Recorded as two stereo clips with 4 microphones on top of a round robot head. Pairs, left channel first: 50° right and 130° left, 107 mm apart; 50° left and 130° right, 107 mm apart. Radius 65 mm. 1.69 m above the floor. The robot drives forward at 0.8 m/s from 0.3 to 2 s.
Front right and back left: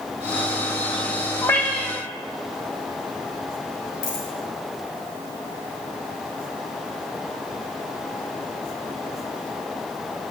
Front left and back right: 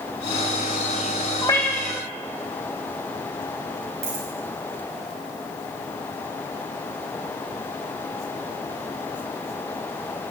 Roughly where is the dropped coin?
Right.